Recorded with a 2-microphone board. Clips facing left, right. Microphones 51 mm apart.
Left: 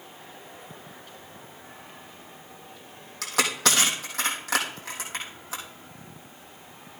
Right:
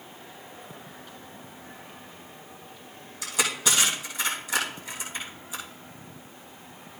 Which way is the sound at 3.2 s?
85° left.